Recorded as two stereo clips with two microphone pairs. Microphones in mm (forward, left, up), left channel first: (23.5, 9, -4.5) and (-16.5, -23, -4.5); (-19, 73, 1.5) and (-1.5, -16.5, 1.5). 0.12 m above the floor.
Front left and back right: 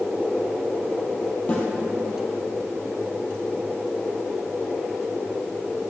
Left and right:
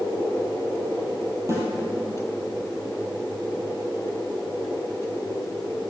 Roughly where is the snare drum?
Ahead right.